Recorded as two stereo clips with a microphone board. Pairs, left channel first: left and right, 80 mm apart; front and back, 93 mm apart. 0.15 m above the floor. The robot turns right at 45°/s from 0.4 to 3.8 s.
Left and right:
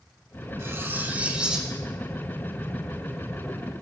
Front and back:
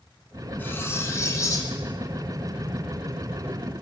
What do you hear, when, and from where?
0.6 s cutlery clinking: 55° right, 0.7 m; by 1.7 s 5° right, 0.7 m